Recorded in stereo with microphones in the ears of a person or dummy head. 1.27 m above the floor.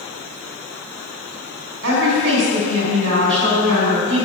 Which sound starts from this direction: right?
A woman speaking, at 1.8 s.